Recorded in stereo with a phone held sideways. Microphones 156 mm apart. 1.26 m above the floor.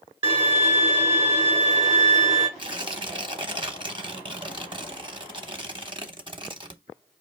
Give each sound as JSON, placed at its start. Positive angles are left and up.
{"t": 0.2, "sound": "a violin", "side_deg": -25, "distance_m": 1.3}
{"t": 2.6, "sound": "tearing paper", "side_deg": -35, "distance_m": 0.7}